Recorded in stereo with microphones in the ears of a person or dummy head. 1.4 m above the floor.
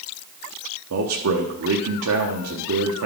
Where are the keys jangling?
I don't hear keys jangling.